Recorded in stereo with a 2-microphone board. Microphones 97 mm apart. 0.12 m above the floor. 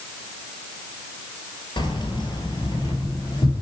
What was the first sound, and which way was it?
Keys jangling, 50° left (ahead or behind).